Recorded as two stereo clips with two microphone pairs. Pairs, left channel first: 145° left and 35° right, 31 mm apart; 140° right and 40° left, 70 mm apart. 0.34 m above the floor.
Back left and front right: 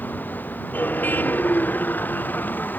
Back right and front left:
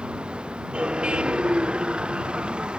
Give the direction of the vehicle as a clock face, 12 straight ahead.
8 o'clock.